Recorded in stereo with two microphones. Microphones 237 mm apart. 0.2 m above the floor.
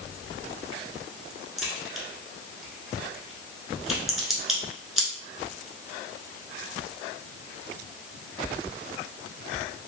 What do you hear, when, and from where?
1.6 s a crack: centre (ahead or behind), 0.9 m